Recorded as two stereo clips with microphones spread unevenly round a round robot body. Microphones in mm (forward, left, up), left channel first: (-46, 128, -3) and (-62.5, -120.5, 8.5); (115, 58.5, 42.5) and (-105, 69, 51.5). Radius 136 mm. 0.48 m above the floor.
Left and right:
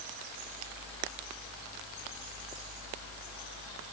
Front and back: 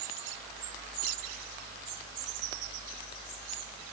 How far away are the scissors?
I don't hear scissors.